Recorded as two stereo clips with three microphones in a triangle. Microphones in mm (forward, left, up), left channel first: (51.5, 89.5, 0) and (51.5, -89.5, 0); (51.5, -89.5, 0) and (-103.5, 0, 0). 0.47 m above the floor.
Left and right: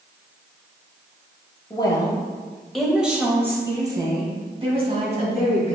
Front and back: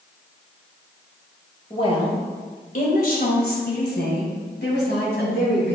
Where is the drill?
No drill in this recording.